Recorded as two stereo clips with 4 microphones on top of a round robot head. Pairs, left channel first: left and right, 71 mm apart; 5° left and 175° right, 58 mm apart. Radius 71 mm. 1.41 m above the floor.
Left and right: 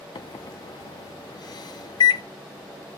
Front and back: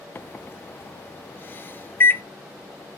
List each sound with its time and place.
0.1 s a microwave: 60° left, 0.5 m